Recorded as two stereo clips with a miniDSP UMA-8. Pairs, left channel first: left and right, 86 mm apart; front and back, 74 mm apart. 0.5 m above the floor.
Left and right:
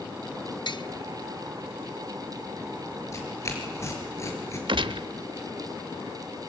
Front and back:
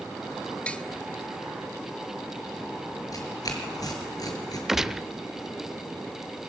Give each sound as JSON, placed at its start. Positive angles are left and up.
{"t": 0.7, "sound": "tapping", "azimuth_deg": 75, "distance_m": 1.0}
{"t": 3.1, "sound": "tearing paper", "azimuth_deg": 35, "distance_m": 5.5}
{"t": 4.7, "sound": "a gunshot", "azimuth_deg": -95, "distance_m": 0.8}